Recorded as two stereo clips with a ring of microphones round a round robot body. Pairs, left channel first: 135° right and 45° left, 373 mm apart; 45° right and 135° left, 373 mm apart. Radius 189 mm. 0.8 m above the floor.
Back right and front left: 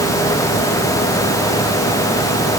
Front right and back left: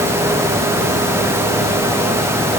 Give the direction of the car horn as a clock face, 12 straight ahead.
I don't hear a car horn.